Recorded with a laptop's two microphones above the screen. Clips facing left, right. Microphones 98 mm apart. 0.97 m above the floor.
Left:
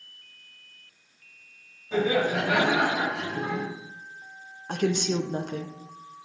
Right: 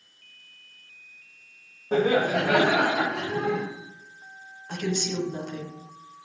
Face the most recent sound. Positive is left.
turn(degrees=50)  # may be behind; listen again after turning